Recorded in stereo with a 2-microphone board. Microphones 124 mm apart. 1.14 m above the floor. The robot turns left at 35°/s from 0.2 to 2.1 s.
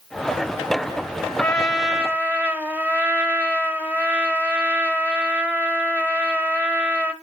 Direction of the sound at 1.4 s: 10° left (ahead or behind).